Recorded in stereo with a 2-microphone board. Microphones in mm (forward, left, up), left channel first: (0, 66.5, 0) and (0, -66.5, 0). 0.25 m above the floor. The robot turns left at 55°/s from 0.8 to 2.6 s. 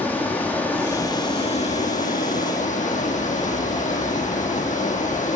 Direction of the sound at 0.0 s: 165° left.